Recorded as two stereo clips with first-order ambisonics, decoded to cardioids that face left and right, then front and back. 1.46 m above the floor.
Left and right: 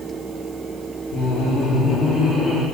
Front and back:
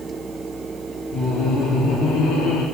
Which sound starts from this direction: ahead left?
Laughter, at 1.1 s.